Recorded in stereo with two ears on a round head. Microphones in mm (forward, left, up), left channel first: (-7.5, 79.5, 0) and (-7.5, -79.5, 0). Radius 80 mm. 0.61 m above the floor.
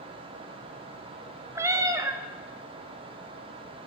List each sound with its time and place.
1.6 s a cat meowing: 15° right (ahead or behind), 0.5 m